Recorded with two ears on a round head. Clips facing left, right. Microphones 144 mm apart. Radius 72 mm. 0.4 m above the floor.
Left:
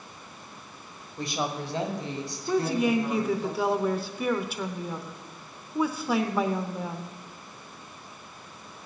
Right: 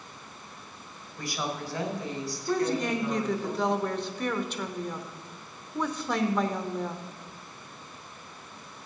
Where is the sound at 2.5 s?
5° left (ahead or behind), 0.8 m.